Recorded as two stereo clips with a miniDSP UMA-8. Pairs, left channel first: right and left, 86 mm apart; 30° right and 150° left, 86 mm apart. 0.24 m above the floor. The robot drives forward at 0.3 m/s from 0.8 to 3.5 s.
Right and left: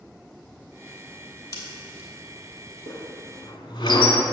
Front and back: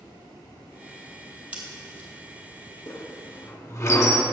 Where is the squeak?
70° right, 0.8 m; by 4.2 s 85° right, 0.8 m.